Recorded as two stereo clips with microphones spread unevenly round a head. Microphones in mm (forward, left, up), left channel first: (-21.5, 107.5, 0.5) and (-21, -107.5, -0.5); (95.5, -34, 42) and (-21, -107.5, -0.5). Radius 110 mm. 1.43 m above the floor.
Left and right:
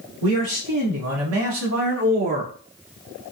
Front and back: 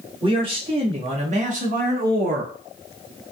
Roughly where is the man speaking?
Right.